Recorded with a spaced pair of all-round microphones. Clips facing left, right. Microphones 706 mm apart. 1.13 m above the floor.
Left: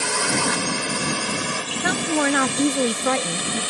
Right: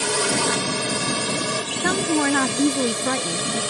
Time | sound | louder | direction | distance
0.0 | a drone | right 2 dB | 60° right (ahead or behind) | ?
1.8 | a woman speaking | right 1 dB | 15° left (ahead or behind) | ?